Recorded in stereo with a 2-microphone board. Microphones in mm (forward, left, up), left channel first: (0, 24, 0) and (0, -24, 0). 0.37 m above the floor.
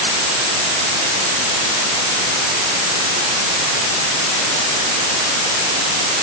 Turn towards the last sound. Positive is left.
No sound to turn to.